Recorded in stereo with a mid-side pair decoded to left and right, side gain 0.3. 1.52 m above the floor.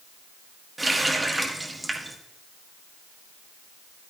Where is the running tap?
25° right, 1.7 m.